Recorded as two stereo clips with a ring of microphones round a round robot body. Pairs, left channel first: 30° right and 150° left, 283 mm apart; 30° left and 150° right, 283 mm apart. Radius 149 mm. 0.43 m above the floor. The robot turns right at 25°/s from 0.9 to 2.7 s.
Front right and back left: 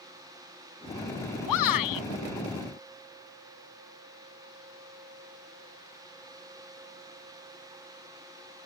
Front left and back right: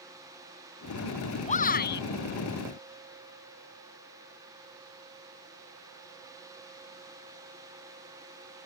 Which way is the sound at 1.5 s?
35° right.